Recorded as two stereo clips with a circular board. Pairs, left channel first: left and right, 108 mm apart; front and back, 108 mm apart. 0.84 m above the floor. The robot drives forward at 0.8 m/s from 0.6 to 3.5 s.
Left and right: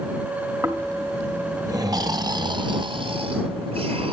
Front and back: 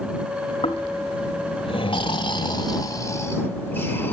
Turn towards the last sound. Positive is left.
turn(degrees=-70)